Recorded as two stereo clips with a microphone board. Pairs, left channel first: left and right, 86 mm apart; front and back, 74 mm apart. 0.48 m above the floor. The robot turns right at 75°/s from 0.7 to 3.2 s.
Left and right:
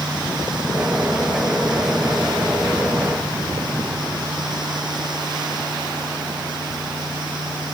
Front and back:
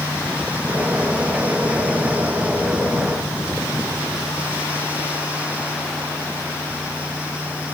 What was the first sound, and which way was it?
Only background noise.